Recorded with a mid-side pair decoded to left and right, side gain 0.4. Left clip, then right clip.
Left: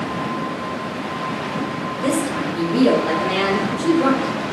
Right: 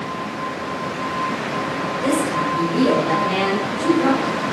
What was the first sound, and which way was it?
A woman speaking, 20° left.